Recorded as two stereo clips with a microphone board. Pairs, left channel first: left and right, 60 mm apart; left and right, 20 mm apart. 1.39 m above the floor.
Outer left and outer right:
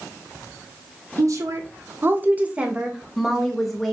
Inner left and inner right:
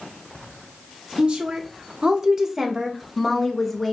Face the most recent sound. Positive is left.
turn(degrees=5)  # may be behind; listen again after turning